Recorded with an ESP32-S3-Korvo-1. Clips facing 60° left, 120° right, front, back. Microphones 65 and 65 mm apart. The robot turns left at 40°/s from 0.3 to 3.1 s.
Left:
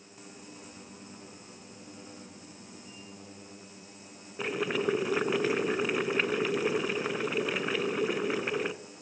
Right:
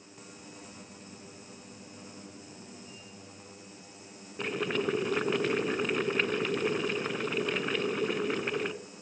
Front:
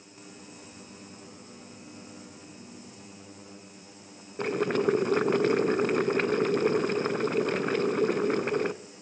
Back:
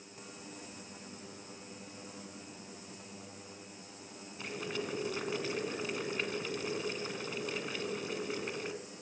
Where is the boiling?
25° right, 0.6 m.